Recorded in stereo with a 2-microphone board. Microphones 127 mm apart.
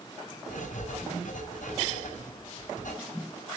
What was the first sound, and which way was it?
Writing, 70° left (ahead or behind).